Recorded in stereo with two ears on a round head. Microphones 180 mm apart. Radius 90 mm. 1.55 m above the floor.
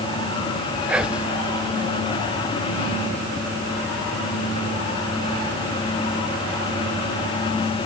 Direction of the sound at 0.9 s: 5° right (ahead or behind).